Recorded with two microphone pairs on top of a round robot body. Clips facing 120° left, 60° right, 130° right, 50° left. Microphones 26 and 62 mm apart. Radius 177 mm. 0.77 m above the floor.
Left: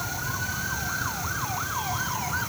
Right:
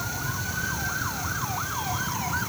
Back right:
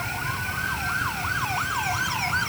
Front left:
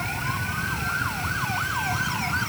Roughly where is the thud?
I don't hear a thud.